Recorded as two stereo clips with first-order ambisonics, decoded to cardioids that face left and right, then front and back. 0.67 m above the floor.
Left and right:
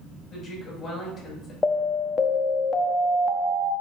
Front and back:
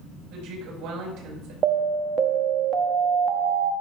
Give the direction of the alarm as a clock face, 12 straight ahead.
7 o'clock.